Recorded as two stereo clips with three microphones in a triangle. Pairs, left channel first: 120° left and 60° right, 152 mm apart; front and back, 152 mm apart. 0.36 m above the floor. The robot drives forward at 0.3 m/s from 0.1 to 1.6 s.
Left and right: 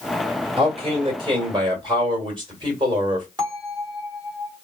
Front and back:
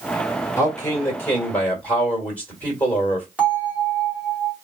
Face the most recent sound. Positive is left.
turn(degrees=-105)